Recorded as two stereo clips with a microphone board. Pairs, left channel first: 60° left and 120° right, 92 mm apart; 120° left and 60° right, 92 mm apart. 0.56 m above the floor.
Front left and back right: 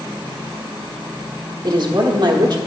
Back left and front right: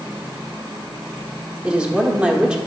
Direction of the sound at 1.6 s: 135° right.